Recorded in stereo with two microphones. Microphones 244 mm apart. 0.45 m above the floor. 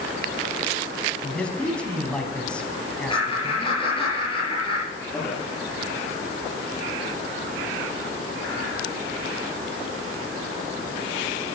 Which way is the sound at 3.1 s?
20° left (ahead or behind).